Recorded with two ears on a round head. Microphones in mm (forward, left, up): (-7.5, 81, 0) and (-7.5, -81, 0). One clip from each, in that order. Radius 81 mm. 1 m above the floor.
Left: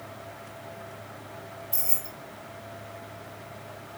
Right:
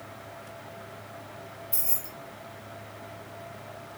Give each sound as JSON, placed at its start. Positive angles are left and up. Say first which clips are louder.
{"t": 1.7, "sound": "keys jangling", "louder": "left 1 dB", "side_deg": -15, "distance_m": 1.2}